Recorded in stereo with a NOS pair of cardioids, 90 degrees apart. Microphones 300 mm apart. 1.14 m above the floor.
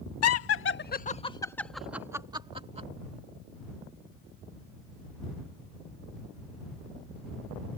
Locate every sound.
0.2 s laughter: 60° left; by 2.9 s 25° right